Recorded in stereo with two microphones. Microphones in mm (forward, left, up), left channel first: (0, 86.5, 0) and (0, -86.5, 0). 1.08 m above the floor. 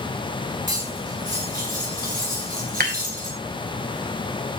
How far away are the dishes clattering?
About 3 m.